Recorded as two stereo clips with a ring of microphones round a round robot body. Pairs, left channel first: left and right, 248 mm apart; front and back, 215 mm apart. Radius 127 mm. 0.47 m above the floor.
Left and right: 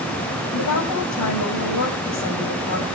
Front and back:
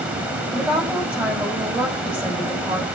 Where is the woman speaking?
95° left, 3.5 m.